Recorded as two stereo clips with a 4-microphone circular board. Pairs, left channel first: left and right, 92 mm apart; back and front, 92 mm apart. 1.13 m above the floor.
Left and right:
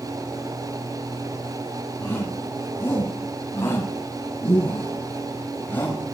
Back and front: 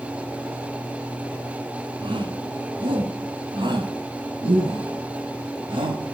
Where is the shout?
25° left, 8 m; by 6.1 s 20° left, 5.5 m.